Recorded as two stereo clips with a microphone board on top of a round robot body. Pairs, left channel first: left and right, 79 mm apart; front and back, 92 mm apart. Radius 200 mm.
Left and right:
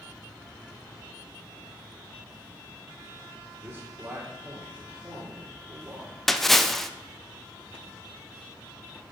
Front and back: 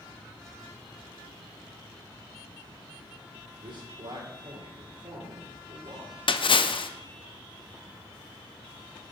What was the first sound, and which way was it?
A man speaking, 150° right.